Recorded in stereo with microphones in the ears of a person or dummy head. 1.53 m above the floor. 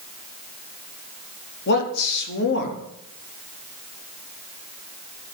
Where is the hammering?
I don't hear hammering.